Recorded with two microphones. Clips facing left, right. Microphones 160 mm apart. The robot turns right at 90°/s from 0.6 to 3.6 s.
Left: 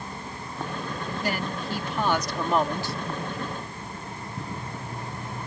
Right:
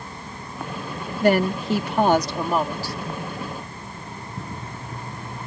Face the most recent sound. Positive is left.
turn(degrees=90)